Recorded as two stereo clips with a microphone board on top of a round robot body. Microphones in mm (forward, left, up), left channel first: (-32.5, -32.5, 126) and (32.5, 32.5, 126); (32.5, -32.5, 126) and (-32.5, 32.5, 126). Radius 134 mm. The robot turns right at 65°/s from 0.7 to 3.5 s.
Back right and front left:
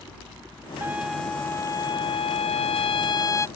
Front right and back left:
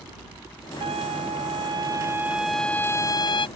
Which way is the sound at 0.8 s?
115° left.